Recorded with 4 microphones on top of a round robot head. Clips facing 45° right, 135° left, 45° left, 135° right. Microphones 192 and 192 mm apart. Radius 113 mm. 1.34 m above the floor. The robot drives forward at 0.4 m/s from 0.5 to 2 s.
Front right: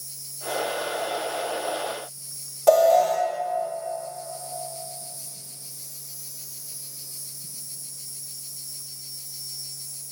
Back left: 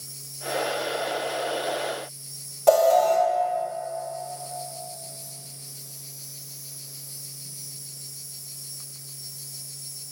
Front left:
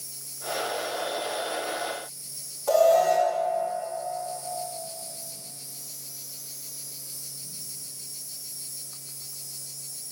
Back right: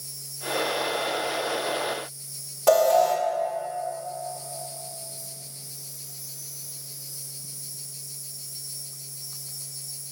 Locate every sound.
0.0 s an insect: 70° right, 5.5 m; by 10.1 s 75° right, 5 m
2.7 s an alarm: 135° right, 3 m